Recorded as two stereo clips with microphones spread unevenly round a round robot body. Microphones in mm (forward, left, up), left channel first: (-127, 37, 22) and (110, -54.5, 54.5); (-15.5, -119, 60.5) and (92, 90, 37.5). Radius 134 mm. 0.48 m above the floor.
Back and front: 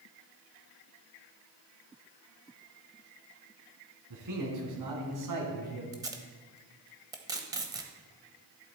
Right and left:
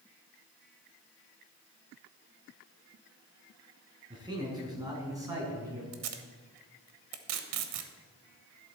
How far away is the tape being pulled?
About 1.0 m.